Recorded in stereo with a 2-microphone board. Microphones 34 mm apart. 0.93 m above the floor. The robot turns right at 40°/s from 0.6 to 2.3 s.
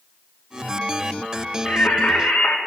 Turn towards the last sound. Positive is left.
turn(degrees=70)  # may be behind; listen again after turning